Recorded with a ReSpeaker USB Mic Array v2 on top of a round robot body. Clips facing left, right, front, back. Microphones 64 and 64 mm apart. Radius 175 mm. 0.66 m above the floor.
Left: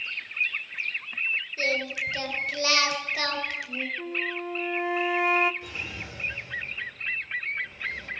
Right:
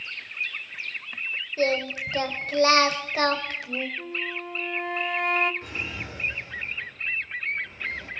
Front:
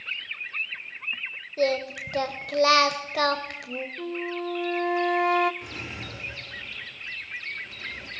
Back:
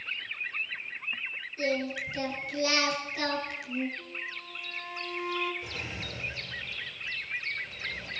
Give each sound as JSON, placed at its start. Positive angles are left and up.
{"t": 1.6, "sound": "singing", "azimuth_deg": -35, "distance_m": 1.5}
{"t": 4.0, "sound": "a flute", "azimuth_deg": 5, "distance_m": 0.7}
{"t": 5.6, "sound": "a drawer", "azimuth_deg": -35, "distance_m": 6.0}